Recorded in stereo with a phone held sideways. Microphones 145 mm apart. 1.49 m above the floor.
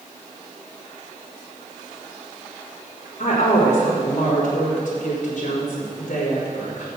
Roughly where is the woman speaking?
Left.